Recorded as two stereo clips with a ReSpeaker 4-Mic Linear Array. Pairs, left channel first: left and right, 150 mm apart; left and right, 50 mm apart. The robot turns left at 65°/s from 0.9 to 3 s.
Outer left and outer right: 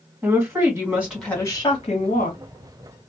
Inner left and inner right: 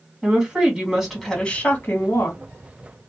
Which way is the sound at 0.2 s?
160° right.